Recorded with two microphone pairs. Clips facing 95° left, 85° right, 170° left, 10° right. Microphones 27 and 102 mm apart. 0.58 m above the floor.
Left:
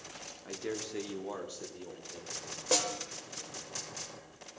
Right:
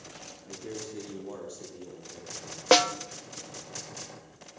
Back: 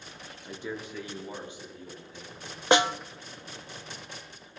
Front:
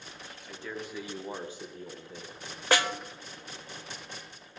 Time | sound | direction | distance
0.5 | a man speaking | 125° left | 1.2 m
2.7 | a snare drum | 120° right | 0.5 m